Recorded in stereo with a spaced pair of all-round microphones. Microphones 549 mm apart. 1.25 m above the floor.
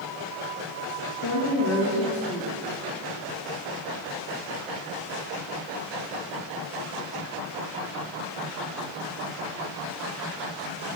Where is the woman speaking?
65° left (ahead or behind), 1.7 m.